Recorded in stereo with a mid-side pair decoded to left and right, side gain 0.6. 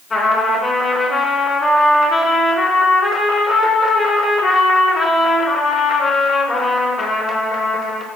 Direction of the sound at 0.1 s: 20° left.